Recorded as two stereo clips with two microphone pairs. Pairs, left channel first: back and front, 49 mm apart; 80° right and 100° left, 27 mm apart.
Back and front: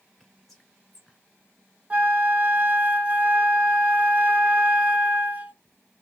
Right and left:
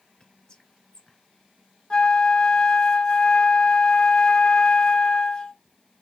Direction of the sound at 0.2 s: 80° right.